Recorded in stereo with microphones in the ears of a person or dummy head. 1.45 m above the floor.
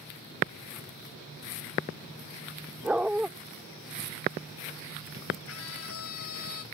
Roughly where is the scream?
Left.